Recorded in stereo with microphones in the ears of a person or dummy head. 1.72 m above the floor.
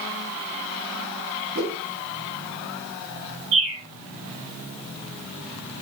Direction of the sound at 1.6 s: 60° right (ahead or behind).